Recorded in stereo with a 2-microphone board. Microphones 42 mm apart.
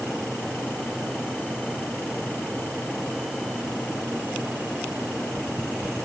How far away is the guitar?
No guitar in this recording.